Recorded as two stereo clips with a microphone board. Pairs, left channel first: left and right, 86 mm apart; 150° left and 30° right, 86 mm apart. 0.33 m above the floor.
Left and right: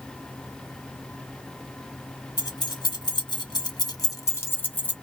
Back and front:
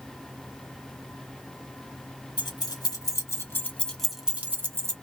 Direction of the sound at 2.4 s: 120° left.